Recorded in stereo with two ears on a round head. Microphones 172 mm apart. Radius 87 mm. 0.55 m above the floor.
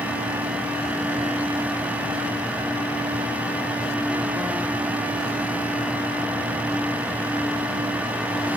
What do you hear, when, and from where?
Only background noise.